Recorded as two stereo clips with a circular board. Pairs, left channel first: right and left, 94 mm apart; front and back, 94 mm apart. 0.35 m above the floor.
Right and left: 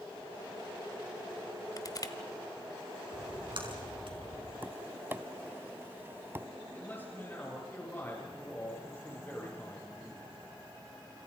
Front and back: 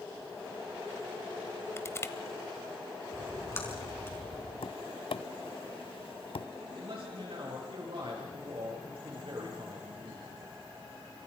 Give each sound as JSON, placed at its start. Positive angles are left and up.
{"t": 1.8, "sound": "crushing", "azimuth_deg": -55, "distance_m": 1.0}
{"t": 3.1, "sound": "a splash", "azimuth_deg": 65, "distance_m": 4.5}
{"t": 4.6, "sound": "tapping", "azimuth_deg": 20, "distance_m": 0.5}
{"t": 6.7, "sound": "a man speaking", "azimuth_deg": -160, "distance_m": 7.0}